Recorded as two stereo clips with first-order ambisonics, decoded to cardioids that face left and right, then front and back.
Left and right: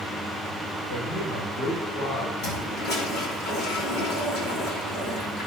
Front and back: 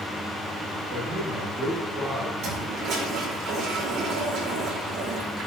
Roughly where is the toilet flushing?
Behind left.